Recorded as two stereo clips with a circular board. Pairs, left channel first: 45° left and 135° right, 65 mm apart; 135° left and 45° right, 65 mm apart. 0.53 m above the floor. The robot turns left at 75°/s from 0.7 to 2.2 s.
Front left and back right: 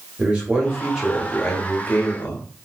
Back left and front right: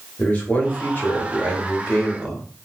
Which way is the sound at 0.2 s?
170° left.